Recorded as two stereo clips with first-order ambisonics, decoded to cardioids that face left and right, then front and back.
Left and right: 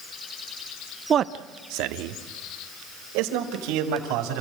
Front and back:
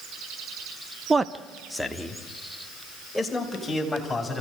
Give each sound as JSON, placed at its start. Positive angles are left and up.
{"t": 1.1, "sound": "a man speaking", "azimuth_deg": -125, "distance_m": 0.5}